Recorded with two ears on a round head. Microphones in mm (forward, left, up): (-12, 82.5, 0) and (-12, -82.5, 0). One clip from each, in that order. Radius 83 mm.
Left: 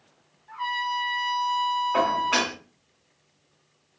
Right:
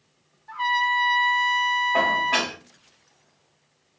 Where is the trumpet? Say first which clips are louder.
Right 6 dB; 30° right (ahead or behind), 1.1 m.